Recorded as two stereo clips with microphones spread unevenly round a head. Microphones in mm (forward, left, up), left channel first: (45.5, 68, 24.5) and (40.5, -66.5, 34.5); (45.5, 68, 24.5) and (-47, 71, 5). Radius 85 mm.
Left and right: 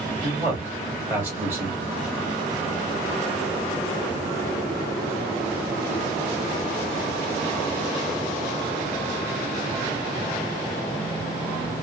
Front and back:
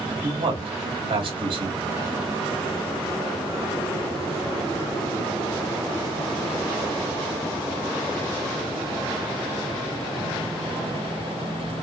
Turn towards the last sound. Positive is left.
turn(degrees=-170)